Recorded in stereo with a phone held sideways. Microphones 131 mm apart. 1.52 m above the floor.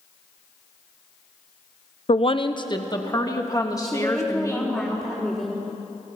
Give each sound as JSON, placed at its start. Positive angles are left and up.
{"t": 2.1, "sound": "a woman speaking", "side_deg": 50, "distance_m": 0.7}
{"t": 3.8, "sound": "a woman speaking", "side_deg": 10, "distance_m": 3.0}